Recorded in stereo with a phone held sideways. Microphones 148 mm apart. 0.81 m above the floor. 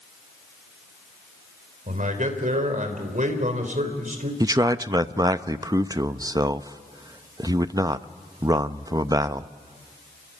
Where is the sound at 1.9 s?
60° right (ahead or behind), 3.5 m.